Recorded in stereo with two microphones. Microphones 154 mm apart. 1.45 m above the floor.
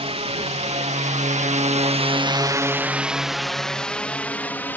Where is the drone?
40° right (ahead or behind); by 4.8 s 10° left (ahead or behind).